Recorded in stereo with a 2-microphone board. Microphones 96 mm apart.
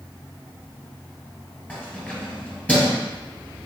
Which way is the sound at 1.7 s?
15° left (ahead or behind).